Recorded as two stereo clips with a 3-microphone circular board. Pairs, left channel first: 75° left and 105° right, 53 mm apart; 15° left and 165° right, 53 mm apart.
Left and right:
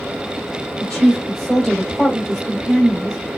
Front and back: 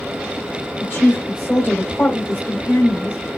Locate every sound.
0.8 s a woman speaking: 5° right, 1.9 m